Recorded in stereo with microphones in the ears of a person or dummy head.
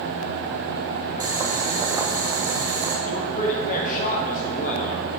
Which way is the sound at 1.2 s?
20° right (ahead or behind).